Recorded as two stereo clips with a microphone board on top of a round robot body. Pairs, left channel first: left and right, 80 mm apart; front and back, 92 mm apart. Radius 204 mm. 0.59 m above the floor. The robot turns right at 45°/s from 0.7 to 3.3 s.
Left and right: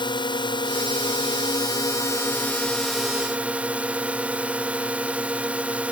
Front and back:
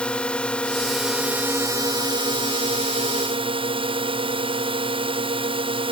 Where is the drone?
80° left; by 5.9 s 165° right.